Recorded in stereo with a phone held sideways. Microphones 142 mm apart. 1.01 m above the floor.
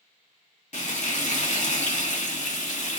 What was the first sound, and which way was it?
Frying, 60° left (ahead or behind).